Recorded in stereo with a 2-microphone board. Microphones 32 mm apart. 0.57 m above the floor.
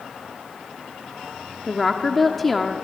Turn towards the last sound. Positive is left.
turn(degrees=5)  # may be behind; listen again after turning